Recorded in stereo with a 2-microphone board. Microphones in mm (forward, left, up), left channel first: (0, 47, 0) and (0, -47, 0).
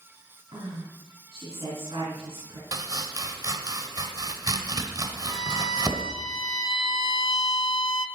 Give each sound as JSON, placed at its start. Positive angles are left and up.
{"t": 0.5, "sound": "a woman speaking", "side_deg": -75, "distance_m": 4.0}
{"t": 2.7, "sound": "chopping", "side_deg": -40, "distance_m": 1.3}
{"t": 5.3, "sound": "a violin", "side_deg": 60, "distance_m": 0.8}